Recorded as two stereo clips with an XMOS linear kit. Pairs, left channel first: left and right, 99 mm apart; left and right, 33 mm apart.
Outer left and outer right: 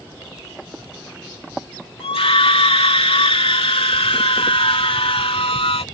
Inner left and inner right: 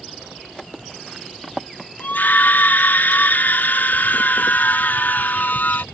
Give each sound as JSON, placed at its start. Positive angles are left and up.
{"t": 2.0, "sound": "a scream", "side_deg": 85}